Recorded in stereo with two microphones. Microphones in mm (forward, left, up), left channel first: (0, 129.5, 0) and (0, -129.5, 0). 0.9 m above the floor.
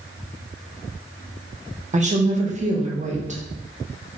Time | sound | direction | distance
1.9 | a woman speaking | 30° right (ahead or behind) | 0.8 m